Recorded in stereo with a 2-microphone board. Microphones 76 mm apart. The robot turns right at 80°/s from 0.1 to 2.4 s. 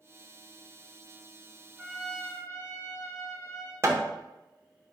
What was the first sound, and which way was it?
A trumpet, 10° right.